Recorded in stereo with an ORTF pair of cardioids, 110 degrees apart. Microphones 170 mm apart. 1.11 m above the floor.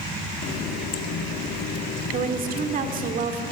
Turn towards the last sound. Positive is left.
turn(degrees=-55)